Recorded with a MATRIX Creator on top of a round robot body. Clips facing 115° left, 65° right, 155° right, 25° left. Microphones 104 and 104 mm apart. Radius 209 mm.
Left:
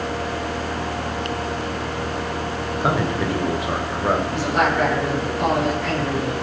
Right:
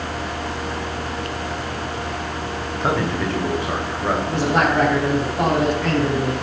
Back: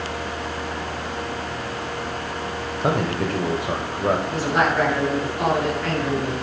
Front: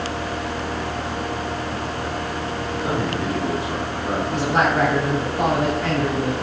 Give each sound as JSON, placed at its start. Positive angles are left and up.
{"t": 2.8, "sound": "a man speaking", "azimuth_deg": -170, "distance_m": 2.5}
{"t": 4.3, "sound": "a man speaking", "azimuth_deg": -35, "distance_m": 8.5}